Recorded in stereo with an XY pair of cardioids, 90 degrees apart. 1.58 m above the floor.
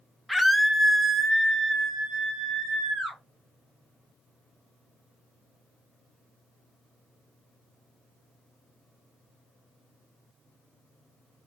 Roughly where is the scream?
Ahead.